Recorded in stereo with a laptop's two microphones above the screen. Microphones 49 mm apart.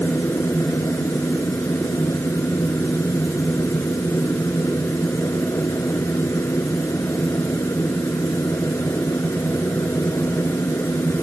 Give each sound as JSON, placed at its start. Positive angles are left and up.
{"t": 0.0, "sound": "a machine running", "side_deg": 55}